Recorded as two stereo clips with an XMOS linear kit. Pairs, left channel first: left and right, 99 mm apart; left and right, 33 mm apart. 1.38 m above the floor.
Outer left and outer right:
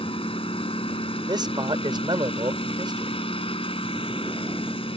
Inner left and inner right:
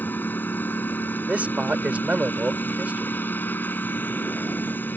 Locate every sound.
0.0 s a lawn mower: 65° left (ahead or behind)
1.3 s a man speaking: 45° right (ahead or behind)